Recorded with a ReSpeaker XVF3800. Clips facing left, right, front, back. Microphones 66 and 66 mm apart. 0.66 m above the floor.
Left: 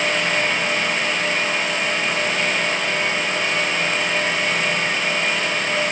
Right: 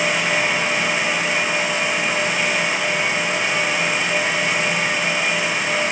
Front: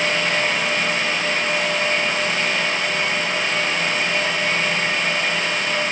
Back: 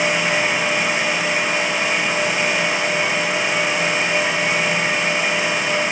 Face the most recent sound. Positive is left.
No sound to turn to.